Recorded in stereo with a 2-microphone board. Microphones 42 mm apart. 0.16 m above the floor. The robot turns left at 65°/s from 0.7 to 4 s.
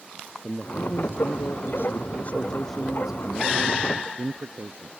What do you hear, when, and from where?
0.4 s a man speaking: 140° left; by 4.9 s 75° right